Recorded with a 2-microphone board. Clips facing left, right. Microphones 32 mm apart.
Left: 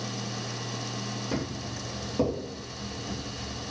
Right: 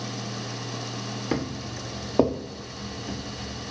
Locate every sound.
1.3 s footsteps: 70° right (ahead or behind), 0.9 m; by 3.7 s 45° right (ahead or behind), 1.3 m